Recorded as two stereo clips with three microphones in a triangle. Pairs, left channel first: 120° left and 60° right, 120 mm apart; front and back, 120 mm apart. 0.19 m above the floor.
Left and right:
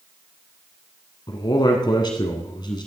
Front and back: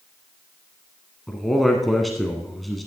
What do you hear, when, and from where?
1.3 s a man speaking: 90° left, 1.4 m